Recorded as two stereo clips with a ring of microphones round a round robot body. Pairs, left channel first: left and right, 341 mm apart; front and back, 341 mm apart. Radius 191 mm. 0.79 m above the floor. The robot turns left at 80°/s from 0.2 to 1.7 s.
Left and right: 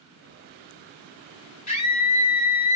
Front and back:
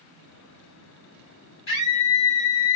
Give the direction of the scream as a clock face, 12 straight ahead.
11 o'clock.